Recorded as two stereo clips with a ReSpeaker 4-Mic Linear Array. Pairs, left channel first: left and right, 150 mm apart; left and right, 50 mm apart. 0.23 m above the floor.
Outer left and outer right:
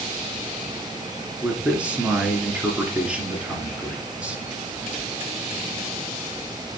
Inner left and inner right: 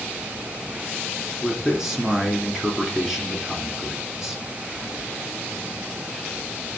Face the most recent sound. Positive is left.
turn(degrees=-5)  # may be behind; listen again after turning